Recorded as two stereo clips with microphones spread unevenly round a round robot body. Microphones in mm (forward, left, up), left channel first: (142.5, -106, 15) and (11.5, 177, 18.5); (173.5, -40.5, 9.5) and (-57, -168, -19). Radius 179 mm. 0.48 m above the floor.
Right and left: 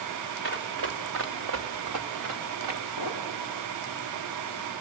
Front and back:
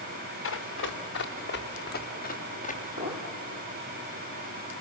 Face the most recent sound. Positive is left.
turn(degrees=155)